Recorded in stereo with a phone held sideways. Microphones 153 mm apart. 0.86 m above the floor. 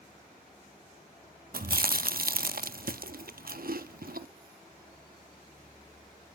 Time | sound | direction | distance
1.5 | chewing | 70° right (ahead or behind) | 0.5 m